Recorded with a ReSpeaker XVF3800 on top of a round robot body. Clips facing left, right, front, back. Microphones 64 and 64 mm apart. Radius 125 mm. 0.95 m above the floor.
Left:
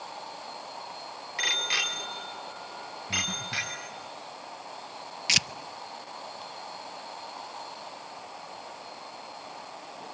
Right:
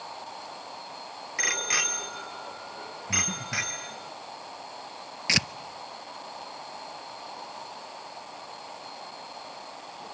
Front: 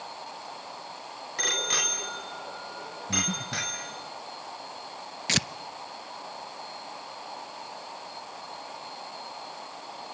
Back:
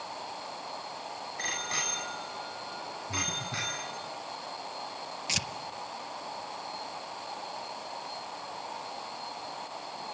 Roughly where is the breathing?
Ahead.